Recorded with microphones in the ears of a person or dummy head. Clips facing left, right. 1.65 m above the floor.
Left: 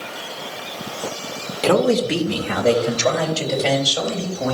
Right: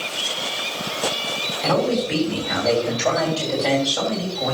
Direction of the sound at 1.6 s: 80° left.